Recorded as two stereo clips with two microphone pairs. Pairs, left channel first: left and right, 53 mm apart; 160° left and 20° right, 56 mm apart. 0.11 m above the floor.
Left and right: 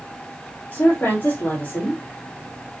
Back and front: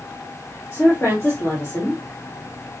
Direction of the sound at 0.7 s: 115° left.